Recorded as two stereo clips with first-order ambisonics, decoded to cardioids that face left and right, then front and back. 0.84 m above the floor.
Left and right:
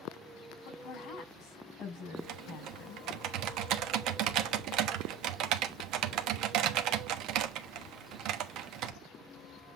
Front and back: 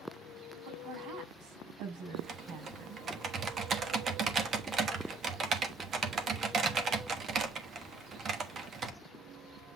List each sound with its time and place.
0.7 s a woman speaking: 140° left, 5.5 m
2.2 s typing on a keyboard: 120° right, 1.1 m